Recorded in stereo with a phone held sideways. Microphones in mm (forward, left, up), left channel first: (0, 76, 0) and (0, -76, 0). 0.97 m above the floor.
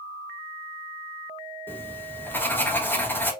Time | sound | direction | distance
1.7 | writing | 10° left (ahead or behind) | 1.1 m